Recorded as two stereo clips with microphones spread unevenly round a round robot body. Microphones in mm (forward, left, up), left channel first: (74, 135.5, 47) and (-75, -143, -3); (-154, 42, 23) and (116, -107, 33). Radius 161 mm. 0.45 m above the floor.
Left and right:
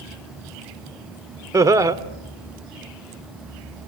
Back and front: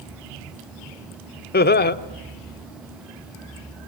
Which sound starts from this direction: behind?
Laughter, at 1.5 s.